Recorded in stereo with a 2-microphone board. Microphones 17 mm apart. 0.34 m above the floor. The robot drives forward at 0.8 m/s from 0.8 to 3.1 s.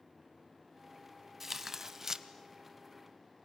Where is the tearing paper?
20° right (ahead or behind), 1.4 m; by 2.2 s 30° right (ahead or behind), 0.9 m.